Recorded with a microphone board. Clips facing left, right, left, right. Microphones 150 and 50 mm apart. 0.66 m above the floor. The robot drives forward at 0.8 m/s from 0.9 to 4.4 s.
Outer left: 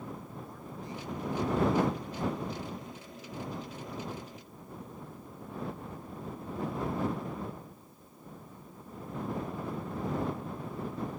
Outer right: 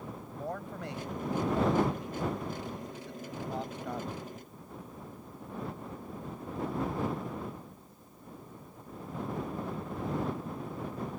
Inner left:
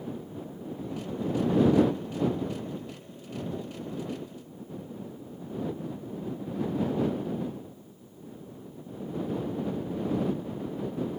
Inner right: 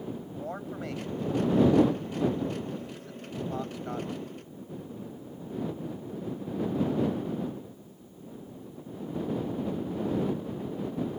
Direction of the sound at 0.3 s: 70° right (ahead or behind).